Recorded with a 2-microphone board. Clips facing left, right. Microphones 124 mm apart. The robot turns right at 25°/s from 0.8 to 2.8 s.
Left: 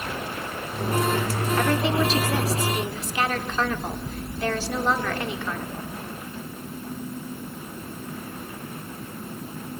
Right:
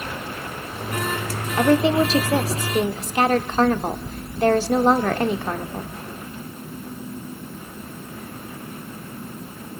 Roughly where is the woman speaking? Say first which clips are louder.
Right 7 dB; behind right.